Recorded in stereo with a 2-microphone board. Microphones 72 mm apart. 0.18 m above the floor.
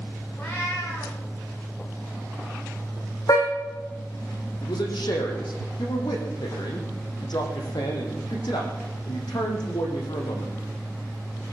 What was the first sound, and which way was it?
A cat meowing, 30° left (ahead or behind).